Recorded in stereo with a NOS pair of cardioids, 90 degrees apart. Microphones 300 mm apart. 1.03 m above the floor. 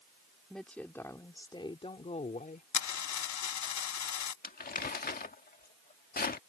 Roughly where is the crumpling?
Ahead left.